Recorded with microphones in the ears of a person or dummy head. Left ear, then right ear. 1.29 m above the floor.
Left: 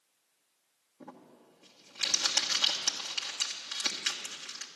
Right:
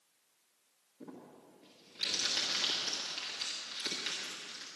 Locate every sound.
1.0 s crumpling: 45° left (ahead or behind), 1.4 m